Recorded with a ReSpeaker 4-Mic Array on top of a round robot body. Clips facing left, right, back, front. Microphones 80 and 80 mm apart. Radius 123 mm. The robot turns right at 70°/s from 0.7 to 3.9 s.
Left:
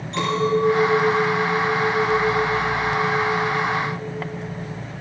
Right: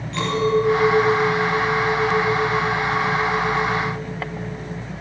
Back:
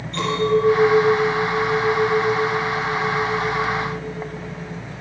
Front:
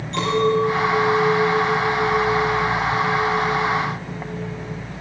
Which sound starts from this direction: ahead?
A clink, at 0.1 s.